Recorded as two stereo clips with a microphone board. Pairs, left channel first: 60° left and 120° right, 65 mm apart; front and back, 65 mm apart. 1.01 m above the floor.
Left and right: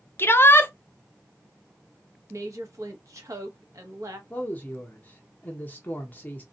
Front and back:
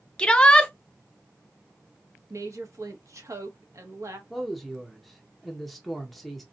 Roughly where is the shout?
Ahead left.